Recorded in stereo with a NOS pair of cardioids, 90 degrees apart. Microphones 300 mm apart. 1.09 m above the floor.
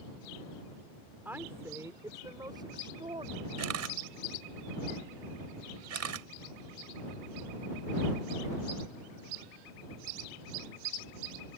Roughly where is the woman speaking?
Ahead.